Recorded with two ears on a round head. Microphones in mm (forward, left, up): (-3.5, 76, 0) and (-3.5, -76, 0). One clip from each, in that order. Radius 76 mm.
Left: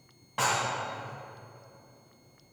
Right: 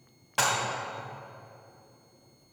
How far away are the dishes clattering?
About 2.0 m.